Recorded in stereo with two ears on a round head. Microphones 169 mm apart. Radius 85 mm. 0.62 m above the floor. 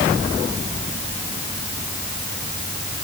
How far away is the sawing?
No sawing in this recording.